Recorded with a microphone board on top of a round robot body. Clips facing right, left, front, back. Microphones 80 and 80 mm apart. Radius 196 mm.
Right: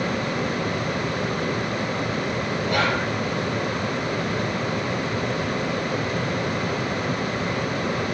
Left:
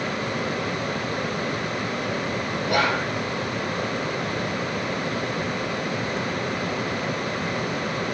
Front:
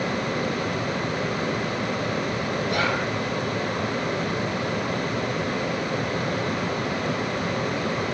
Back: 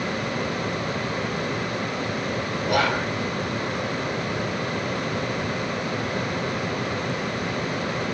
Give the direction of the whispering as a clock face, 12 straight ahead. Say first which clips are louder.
Left 1 dB, back 4 dB; 6 o'clock.